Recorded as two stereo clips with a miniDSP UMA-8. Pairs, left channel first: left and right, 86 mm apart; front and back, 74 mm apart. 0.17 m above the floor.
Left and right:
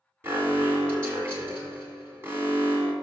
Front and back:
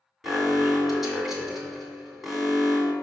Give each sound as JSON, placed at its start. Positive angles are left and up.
{"t": 0.2, "sound": "an alarm", "azimuth_deg": -100, "distance_m": 2.0}